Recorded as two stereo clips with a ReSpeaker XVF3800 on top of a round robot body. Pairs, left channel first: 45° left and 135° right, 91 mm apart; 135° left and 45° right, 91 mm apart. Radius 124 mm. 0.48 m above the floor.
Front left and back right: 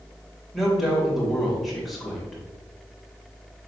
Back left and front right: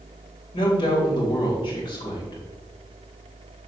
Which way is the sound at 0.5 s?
135° left.